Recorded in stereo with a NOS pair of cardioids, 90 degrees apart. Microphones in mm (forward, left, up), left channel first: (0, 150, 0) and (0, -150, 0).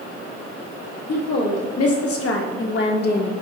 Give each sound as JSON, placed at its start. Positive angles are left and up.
{"t": 1.1, "sound": "a woman speaking", "azimuth_deg": 60, "distance_m": 2.0}